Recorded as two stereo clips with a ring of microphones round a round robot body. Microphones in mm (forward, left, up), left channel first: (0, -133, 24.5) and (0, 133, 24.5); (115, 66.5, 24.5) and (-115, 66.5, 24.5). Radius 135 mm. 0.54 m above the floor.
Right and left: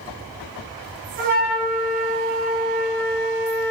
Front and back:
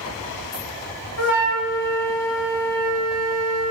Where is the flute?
30° left, 0.9 m.